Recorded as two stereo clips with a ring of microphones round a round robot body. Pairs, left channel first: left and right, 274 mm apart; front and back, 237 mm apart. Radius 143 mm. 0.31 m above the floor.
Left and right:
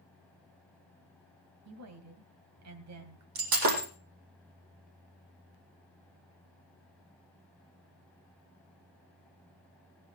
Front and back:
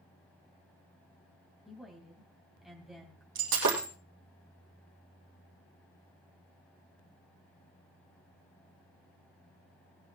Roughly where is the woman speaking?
Right.